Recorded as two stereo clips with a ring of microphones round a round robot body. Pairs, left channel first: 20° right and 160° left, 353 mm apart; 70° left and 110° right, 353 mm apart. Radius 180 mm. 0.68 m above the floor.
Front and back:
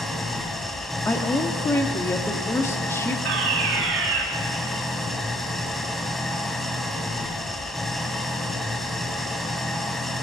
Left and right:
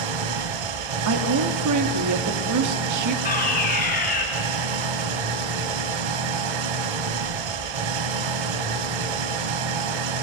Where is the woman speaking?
105° right, 1.8 m.